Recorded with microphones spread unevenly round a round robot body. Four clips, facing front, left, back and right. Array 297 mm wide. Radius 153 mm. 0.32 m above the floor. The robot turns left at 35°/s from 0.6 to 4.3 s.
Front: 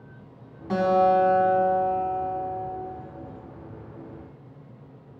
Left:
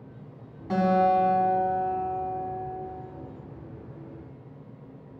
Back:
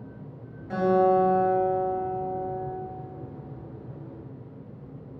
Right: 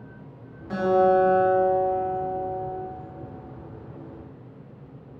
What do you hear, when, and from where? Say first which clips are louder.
0.7 s a guitar: right 2 dB, front 1 dB; 35° left, 3.5 m; by 2.8 s 40° right, 3.5 m